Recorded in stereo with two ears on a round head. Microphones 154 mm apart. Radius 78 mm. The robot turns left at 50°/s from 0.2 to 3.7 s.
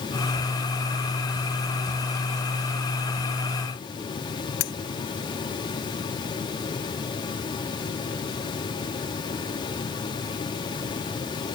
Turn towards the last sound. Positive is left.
turn(degrees=80)